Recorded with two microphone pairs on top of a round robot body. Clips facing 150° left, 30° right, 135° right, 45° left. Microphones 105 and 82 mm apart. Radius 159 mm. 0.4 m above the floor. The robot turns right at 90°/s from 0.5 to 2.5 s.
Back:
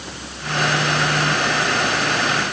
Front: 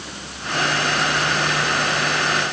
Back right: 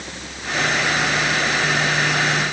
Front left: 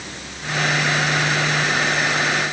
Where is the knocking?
I don't hear knocking.